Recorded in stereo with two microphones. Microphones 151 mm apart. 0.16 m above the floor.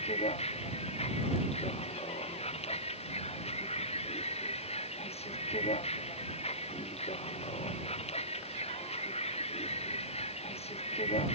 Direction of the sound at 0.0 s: 40° left (ahead or behind).